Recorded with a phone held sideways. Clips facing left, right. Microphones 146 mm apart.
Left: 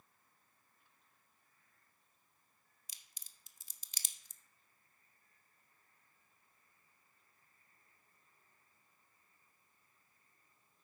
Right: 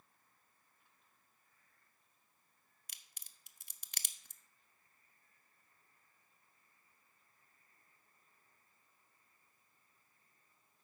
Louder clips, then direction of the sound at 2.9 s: Right 3 dB; 60° right (ahead or behind).